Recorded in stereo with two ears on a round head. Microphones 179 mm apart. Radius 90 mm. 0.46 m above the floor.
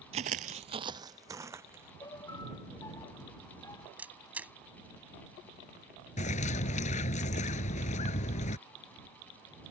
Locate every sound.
0.1 s footsteps: 35° right (ahead or behind); by 1.9 s 10° right (ahead or behind)
2.0 s a piano: 20° left (ahead or behind)
4.0 s a camera shutter: 5° right (ahead or behind)
6.2 s a bird: 35° left (ahead or behind)